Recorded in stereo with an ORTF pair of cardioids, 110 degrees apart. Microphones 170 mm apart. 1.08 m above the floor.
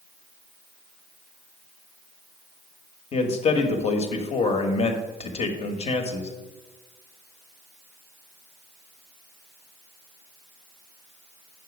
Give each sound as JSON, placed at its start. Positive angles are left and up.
{"t": 3.1, "sound": "a man speaking", "azimuth_deg": 40, "distance_m": 1.4}